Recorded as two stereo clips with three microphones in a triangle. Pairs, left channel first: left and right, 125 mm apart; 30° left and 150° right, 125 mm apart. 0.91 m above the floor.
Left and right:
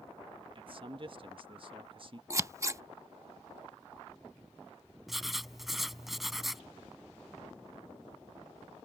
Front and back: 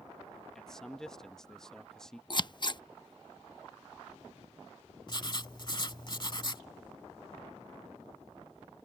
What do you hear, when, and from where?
0.6 s a man speaking: 55° right
2.3 s scissors: 25° right
5.1 s writing: straight ahead